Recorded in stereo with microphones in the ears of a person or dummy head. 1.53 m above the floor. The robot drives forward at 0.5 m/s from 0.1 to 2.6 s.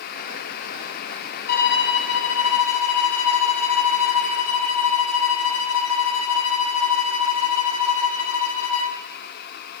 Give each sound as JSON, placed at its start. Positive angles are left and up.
{"t": 1.5, "sound": "a violin", "side_deg": 50, "distance_m": 1.0}